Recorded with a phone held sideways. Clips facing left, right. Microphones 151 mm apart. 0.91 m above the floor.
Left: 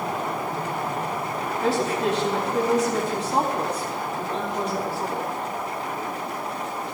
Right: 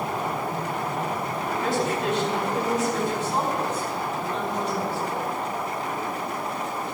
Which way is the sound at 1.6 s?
40° left (ahead or behind).